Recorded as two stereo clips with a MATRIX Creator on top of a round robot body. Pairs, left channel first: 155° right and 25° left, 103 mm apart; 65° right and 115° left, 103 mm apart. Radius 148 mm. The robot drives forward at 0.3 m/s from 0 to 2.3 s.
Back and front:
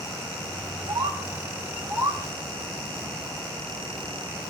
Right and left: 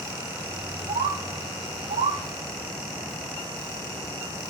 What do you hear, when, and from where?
0.9 s a bird: 75° left, 0.8 m; by 2.2 s 105° left, 0.8 m